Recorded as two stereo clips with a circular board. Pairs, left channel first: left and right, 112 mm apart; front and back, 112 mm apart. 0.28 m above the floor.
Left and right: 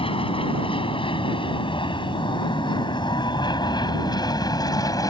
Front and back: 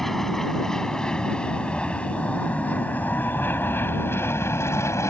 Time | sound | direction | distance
0.0 | an aircraft | 85° left | ?